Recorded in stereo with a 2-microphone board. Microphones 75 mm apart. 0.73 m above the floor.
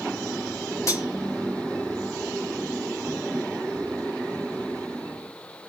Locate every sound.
0.9 s cutlery clinking: 45° left (ahead or behind), 0.8 m